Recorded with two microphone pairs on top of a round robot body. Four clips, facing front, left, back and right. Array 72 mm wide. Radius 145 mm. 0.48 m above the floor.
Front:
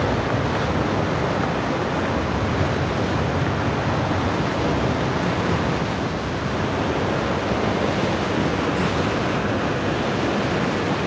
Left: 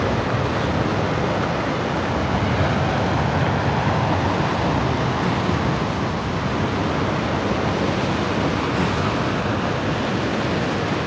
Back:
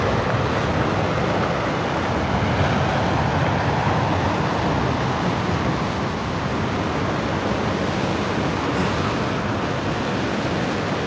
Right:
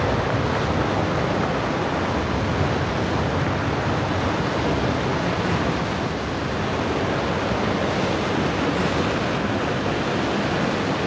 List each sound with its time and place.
0.0 s an aircraft: 170° left; by 11.1 s 125° left